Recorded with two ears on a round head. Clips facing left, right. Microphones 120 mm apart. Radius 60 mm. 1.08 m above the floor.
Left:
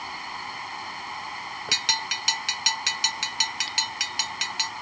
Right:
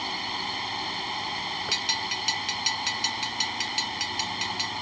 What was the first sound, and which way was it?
A drone, 30° right (ahead or behind).